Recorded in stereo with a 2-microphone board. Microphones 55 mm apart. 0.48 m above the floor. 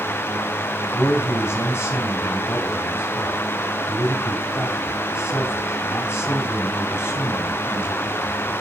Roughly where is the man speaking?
Left.